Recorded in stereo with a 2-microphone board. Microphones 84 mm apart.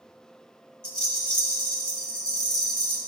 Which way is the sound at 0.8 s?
10° left (ahead or behind).